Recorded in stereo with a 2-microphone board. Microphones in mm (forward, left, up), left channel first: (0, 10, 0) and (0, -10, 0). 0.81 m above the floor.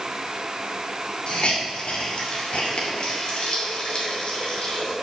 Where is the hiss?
65° left (ahead or behind), 2.5 m.